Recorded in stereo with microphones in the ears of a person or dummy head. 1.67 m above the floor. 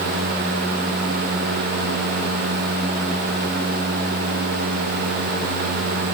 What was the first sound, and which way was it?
Only background noise.